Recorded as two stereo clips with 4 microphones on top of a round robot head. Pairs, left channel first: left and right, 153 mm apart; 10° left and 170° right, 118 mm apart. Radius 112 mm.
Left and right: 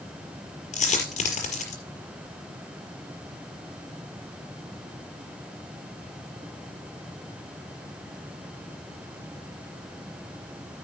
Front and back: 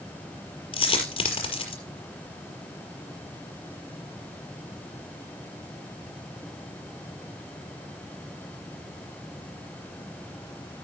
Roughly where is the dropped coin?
Ahead left.